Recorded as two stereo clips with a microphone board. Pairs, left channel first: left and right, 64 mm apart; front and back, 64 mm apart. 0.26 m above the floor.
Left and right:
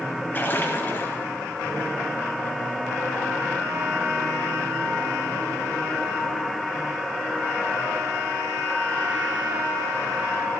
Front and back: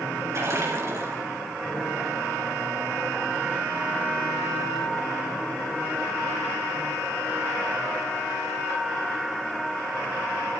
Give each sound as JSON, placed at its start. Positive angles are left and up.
{"t": 0.3, "sound": "a splash", "azimuth_deg": 145, "distance_m": 4.0}